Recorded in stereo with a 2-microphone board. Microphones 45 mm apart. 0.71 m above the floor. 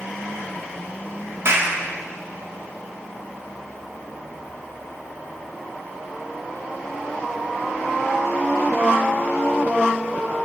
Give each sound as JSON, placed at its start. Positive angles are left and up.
{"t": 1.4, "sound": "a clap", "side_deg": -60, "distance_m": 1.4}